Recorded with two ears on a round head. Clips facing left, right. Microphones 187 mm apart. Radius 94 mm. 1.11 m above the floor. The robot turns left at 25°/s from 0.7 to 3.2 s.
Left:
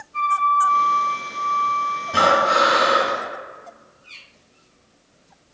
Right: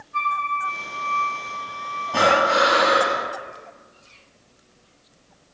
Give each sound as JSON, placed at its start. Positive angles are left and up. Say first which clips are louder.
{"t": 0.1, "sound": "a flute", "louder": "left 6 dB", "azimuth_deg": -110, "distance_m": 1.1}
{"t": 2.1, "sound": "breathing", "louder": "even", "side_deg": 25, "distance_m": 1.1}